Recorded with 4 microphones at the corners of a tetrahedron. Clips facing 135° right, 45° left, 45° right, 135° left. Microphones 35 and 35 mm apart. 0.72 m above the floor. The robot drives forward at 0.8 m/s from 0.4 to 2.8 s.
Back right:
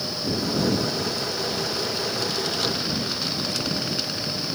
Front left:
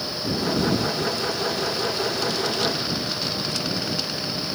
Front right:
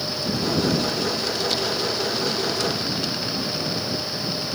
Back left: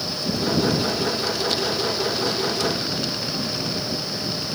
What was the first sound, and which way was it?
Only background noise.